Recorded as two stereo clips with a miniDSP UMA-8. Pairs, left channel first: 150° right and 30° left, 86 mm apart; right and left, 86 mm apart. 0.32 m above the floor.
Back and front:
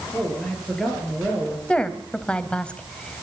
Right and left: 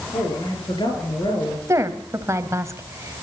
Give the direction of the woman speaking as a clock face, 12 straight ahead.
8 o'clock.